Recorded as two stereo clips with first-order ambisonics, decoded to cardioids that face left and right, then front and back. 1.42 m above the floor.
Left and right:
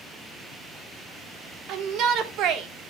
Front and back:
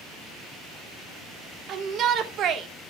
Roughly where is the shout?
Behind right.